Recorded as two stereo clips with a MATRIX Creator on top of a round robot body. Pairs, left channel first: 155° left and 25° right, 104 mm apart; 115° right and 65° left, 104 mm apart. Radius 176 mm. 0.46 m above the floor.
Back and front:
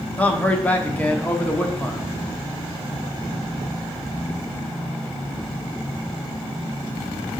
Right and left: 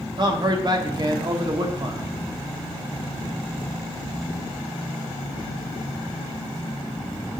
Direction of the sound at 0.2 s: 85° left.